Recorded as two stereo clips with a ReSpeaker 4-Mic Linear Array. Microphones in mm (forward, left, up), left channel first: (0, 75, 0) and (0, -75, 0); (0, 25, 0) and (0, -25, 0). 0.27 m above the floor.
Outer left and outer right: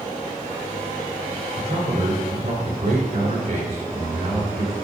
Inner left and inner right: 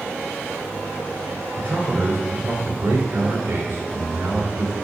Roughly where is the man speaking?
Right.